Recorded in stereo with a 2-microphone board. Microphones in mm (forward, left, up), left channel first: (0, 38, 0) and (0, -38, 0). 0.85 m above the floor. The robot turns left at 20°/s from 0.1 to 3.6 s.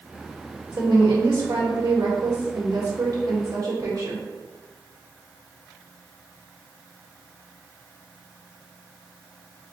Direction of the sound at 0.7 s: 80° right.